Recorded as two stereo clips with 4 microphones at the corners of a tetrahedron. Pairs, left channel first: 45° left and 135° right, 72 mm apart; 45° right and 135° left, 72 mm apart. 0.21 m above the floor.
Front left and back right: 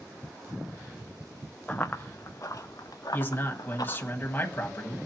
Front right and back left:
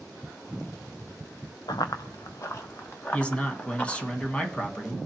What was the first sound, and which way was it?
Running footsteps, 30° right.